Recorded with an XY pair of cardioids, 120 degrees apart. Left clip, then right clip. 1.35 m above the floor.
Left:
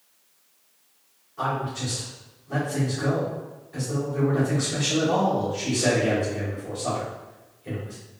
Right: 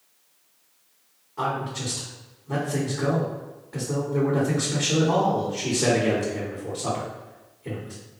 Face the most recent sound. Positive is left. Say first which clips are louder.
# even
turn(degrees=-55)